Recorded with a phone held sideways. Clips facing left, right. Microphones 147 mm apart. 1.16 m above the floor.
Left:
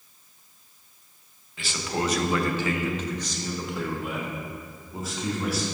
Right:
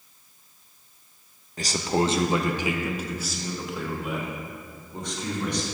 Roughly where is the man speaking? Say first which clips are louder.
Right 5 dB; right.